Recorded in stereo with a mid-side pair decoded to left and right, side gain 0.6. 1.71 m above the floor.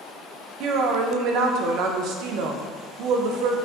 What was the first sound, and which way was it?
A woman speaking, 65° right.